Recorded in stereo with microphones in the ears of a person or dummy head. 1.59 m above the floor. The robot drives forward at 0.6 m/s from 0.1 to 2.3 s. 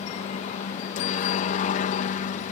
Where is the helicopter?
50° left (ahead or behind).